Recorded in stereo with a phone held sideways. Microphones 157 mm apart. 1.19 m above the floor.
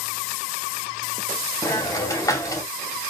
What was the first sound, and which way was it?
A hiss, 20° left (ahead or behind).